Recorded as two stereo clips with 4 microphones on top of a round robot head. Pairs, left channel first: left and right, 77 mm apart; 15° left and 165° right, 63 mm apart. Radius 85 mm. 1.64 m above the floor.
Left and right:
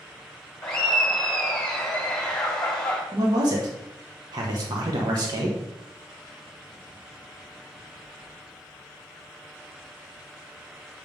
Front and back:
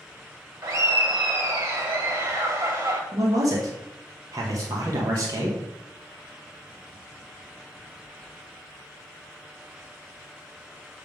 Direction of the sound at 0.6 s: 165° left.